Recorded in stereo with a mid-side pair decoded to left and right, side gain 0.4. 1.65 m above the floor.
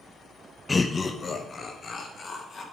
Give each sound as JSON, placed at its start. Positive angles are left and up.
{"t": 0.7, "sound": "laughter", "azimuth_deg": 25, "distance_m": 0.6}